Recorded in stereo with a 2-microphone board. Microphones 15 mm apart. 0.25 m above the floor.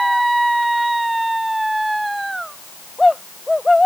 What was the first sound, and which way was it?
Only background noise.